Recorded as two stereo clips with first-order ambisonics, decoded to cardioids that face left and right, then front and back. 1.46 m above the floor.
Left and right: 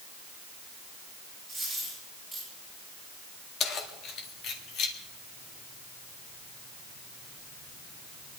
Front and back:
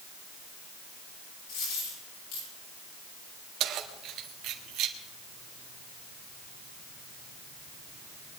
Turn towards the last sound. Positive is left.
turn(degrees=135)